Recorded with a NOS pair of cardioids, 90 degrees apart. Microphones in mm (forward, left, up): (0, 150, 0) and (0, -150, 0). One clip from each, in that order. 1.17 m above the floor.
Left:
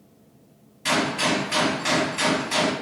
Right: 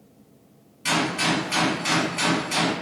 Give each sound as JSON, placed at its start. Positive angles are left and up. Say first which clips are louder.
{"t": 0.8, "sound": "a gunshot", "louder": "even", "azimuth_deg": 0, "distance_m": 1.2}